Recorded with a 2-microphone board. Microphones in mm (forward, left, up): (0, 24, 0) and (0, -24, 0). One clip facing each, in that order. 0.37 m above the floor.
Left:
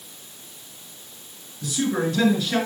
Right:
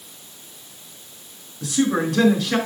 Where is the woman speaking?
70° right (ahead or behind), 5 m.